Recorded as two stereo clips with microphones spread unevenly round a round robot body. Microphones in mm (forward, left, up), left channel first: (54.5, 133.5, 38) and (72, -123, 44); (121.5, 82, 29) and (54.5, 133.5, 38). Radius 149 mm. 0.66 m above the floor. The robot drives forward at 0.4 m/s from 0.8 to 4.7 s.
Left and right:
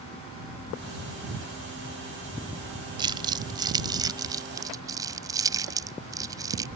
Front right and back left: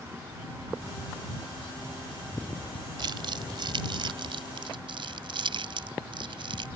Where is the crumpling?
160° right; by 6.7 s 165° right.